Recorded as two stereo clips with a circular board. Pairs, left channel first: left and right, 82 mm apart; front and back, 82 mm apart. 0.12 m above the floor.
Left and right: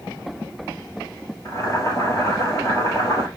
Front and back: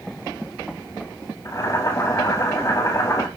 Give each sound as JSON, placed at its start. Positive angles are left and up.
{"t": 1.4, "sound": "boiling", "azimuth_deg": 40, "distance_m": 2.0}